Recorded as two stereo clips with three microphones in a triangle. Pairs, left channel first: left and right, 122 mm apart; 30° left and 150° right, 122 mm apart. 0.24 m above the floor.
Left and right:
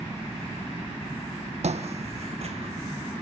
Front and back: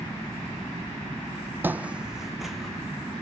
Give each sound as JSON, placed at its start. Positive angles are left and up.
{"t": 1.6, "sound": "footsteps", "azimuth_deg": -75, "distance_m": 0.6}